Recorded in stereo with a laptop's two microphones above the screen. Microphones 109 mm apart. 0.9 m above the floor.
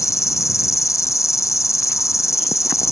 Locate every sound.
0.0 s an insect: 30° left (ahead or behind)